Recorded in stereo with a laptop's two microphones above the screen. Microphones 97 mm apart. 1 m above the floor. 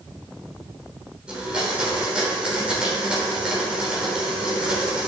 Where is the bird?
I don't hear a bird.